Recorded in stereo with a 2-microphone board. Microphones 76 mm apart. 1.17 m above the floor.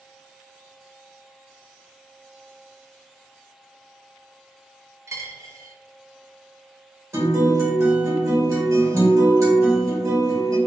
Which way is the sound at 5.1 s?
35° right (ahead or behind).